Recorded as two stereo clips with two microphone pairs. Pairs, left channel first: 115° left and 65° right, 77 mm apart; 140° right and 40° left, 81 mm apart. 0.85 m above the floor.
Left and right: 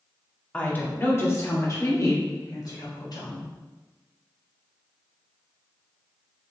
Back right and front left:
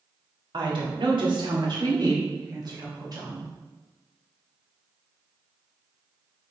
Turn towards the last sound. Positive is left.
turn(degrees=80)